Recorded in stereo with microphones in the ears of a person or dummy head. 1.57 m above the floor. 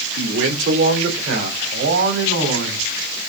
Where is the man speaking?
80° right, 3.5 m; by 2.9 s 70° right (ahead or behind), 4.5 m.